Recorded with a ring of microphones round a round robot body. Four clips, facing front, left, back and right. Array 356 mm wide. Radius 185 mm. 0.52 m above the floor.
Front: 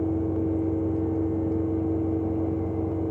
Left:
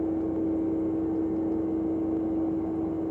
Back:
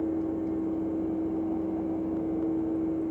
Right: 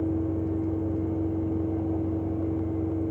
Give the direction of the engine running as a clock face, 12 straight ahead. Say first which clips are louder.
Left 1 dB, front 3 dB; 1 o'clock.